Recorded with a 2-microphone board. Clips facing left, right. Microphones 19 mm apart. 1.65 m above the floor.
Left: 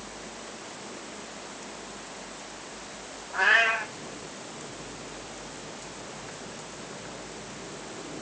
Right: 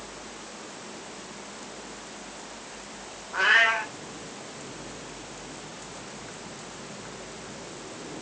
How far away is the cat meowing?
About 3 m.